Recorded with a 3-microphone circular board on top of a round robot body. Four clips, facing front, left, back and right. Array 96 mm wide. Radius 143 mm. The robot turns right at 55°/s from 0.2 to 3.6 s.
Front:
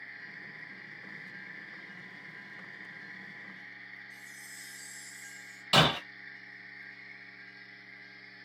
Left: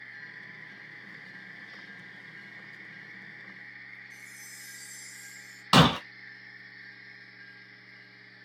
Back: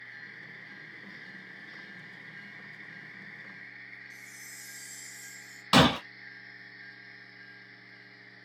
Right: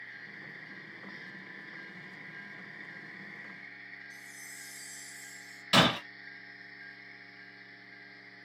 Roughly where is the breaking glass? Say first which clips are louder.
Left 5 dB, back 4 dB; behind left.